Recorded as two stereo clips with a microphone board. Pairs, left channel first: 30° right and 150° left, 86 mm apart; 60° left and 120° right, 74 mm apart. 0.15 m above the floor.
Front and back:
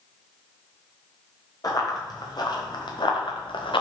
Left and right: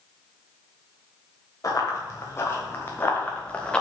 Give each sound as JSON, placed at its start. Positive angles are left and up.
{"t": 1.6, "sound": "running footsteps", "azimuth_deg": 15, "distance_m": 3.0}